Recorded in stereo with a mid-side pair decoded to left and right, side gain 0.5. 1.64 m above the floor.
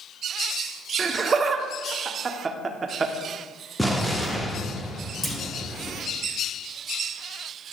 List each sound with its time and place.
1.0 s laughter: 35° right, 1.0 m
3.8 s an explosion: straight ahead, 1.2 m
5.2 s a clunk: 5° left, 1.5 m